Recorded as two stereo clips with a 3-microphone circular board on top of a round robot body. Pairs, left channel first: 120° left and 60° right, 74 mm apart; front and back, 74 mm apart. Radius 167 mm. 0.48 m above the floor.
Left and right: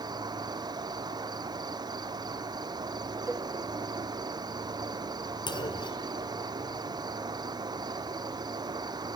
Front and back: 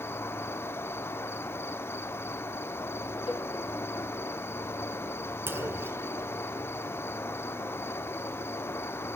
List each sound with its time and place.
0.0 s an insect: 55° right, 1.1 m
3.3 s a cowbell: 10° right, 1.4 m
5.5 s a clunk: 120° left, 1.3 m